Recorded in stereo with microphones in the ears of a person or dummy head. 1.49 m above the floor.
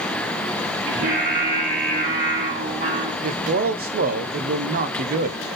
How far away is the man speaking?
About 0.7 m.